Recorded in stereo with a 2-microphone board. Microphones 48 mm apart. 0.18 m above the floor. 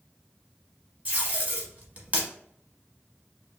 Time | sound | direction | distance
1.1 | tape being pulled | 30° right (ahead or behind) | 1.0 m